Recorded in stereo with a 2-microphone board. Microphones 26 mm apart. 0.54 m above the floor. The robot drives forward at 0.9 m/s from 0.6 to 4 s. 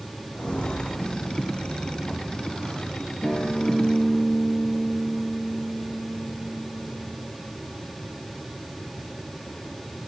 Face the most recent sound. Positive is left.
turn(degrees=35)  # may be behind; listen again after turning